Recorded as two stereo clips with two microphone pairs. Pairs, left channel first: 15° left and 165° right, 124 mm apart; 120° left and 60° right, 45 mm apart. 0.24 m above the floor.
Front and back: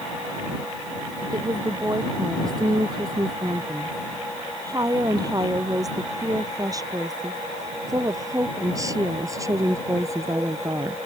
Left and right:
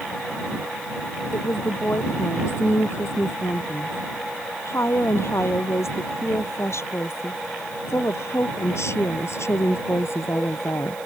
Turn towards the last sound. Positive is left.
turn(degrees=130)